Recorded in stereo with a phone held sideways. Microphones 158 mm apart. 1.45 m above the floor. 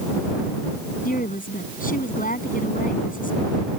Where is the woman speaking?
60° left (ahead or behind).